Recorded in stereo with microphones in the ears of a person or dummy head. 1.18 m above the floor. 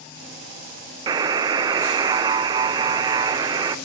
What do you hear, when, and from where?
1.1 s a buzzer: 20° right (ahead or behind), 0.6 m